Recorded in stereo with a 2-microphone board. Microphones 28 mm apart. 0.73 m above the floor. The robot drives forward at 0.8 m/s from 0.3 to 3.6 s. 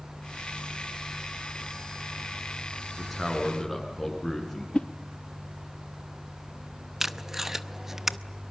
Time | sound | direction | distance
3.0 | a man speaking | 5° left (ahead or behind) | 6.5 m
4.7 | a whoosh | 40° left (ahead or behind) | 0.9 m
7.0 | tape being pulled | 10° right (ahead or behind) | 0.7 m